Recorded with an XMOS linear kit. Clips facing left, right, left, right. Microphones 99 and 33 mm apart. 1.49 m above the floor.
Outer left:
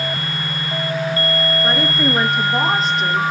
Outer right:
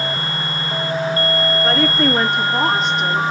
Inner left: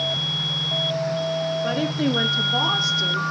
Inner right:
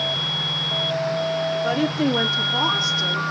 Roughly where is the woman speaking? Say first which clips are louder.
Outer right 2 dB, inner right 3 dB; centre.